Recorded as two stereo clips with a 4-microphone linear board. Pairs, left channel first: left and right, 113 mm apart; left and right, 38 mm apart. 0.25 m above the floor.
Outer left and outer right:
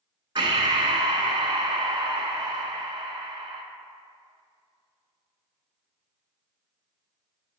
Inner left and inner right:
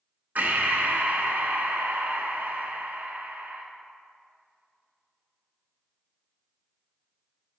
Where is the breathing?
50° right (ahead or behind), 1.1 m.